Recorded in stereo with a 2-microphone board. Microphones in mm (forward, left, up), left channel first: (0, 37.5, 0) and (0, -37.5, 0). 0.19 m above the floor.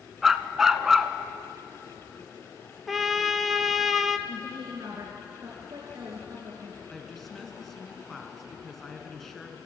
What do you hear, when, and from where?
0.2 s a dog barking: 5° right (ahead or behind), 0.8 m
2.9 s a trumpet: centre (ahead or behind), 0.8 m
4.3 s a woman speaking: 45° right (ahead or behind), 3 m
6.9 s a woman speaking: centre (ahead or behind), 2 m